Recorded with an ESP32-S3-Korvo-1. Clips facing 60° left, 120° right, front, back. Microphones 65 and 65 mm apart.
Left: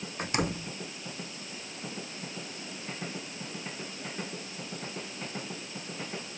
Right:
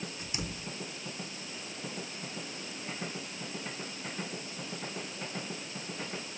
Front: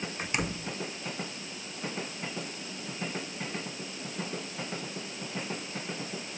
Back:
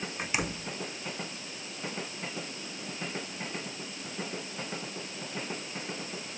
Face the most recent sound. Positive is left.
turn(degrees=95)